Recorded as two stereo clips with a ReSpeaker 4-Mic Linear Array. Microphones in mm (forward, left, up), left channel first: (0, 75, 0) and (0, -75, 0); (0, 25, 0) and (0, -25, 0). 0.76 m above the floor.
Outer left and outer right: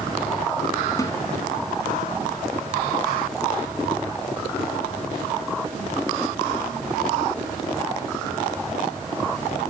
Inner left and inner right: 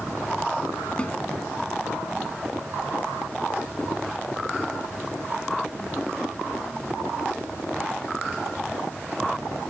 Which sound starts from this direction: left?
A snare drum, at 1.0 s.